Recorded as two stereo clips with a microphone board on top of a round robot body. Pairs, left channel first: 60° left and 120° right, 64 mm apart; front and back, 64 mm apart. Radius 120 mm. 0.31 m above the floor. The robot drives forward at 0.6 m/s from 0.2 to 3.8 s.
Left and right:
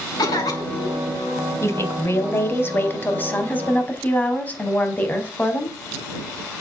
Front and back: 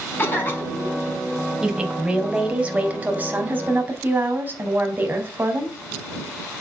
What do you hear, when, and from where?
0.2 s a cough: 55° left, 5 m; by 1.0 s 60° left, 5 m
1.6 s a woman speaking: 100° left, 3.5 m; by 5.8 s 120° left, 3.5 m